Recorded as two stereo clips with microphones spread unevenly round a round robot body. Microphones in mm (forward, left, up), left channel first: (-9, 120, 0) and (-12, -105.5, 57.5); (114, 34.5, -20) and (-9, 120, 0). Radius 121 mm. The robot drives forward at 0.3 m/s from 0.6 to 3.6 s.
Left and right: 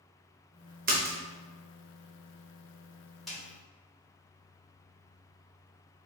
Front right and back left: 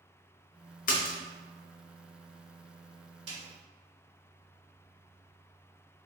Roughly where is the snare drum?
Behind.